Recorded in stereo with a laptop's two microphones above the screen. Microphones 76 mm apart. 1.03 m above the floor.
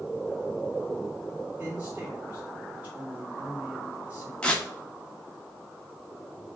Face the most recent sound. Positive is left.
turn(degrees=15)  # may be behind; listen again after turning